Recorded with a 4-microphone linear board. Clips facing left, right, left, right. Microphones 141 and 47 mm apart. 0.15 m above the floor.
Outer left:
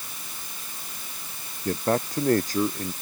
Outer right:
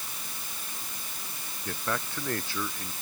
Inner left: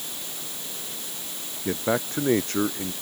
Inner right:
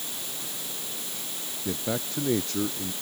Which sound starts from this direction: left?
A man speaking, at 1.6 s.